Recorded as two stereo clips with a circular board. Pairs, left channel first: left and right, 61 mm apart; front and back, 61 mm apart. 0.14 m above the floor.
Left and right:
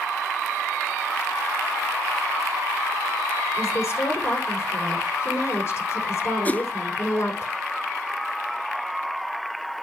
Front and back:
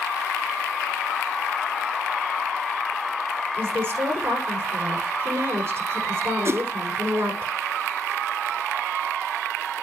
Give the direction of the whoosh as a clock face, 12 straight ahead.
7 o'clock.